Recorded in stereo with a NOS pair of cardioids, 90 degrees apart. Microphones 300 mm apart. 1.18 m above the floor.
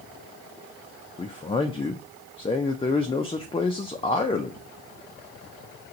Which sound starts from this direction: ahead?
A man speaking, at 1.2 s.